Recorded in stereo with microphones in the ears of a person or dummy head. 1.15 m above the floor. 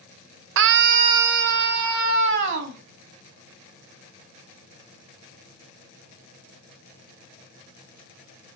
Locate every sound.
0.6 s a scream: 70° right (ahead or behind), 0.5 m; by 2.8 s 60° right (ahead or behind), 2.0 m